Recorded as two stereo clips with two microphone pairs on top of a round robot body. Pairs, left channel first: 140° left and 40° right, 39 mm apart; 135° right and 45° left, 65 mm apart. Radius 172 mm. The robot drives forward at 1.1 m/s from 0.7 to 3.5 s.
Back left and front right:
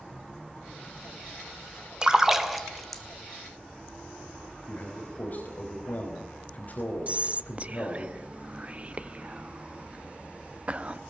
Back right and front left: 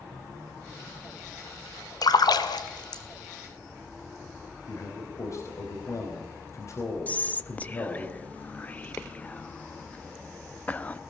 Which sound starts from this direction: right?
Whispering, at 7.1 s.